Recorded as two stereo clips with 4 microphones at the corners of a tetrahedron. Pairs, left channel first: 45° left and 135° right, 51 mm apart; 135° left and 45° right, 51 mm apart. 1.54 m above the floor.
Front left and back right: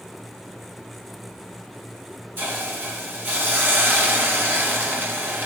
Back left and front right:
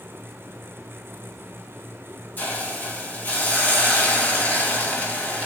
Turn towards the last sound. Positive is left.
turn(degrees=180)